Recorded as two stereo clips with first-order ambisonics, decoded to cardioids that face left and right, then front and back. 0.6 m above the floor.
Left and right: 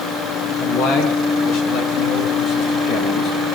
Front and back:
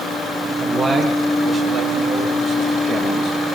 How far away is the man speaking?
About 6.5 m.